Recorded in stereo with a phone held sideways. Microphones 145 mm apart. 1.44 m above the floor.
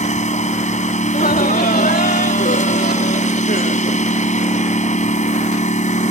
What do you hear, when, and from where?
0.0 s a lawn mower: 60° left (ahead or behind)
1.0 s laughter: 85° left